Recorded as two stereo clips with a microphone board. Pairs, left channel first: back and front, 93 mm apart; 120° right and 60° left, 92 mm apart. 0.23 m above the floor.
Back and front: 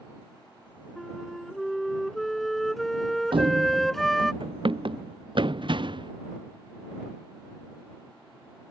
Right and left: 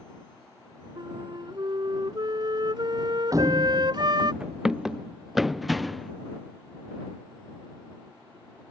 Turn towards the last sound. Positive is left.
turn(degrees=-30)